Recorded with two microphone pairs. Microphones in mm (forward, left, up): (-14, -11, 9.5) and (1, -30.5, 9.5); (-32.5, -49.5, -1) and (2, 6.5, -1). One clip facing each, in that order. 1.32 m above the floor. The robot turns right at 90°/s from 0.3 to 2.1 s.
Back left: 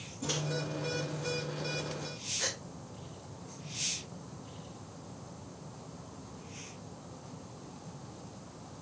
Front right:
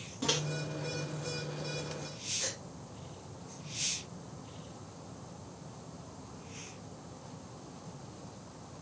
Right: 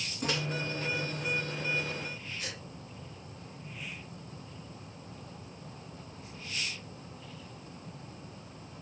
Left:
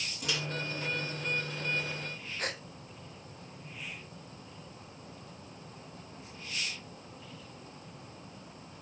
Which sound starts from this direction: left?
A gasp, at 2.4 s.